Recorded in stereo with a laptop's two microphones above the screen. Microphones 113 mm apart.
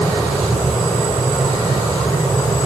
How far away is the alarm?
No alarm in this recording.